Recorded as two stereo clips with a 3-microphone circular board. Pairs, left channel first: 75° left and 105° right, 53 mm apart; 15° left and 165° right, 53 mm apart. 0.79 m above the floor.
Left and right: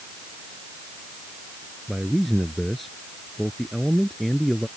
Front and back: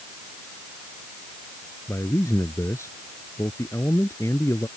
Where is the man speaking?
15° right.